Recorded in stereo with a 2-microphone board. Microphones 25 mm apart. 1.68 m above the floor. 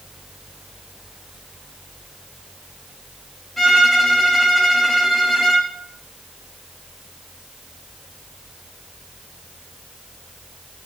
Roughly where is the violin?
Centre.